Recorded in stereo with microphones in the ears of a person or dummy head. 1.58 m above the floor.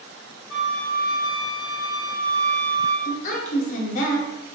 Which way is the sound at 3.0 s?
50° left (ahead or behind).